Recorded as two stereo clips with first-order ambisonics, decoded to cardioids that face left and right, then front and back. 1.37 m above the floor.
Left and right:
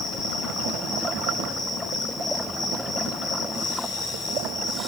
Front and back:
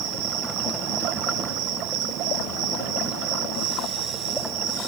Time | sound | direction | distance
0.0 | an insect | 170° left | 1.9 m